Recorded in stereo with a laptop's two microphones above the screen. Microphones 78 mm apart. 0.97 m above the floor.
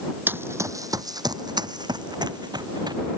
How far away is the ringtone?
No ringtone in this recording.